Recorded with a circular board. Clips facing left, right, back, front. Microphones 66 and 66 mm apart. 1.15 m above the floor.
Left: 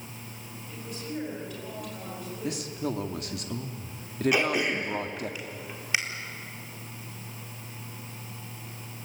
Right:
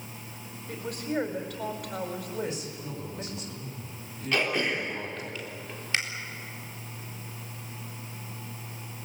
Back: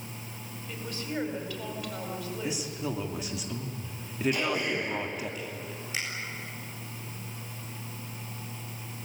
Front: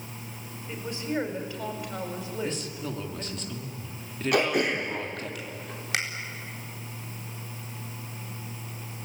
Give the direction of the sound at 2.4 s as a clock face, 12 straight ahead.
9 o'clock.